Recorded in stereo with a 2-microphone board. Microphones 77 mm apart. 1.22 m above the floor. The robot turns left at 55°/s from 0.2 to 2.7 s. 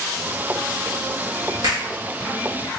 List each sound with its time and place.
1.6 s a finger snap: 65° right (ahead or behind), 1.5 m; by 1.9 s 50° right (ahead or behind), 1.5 m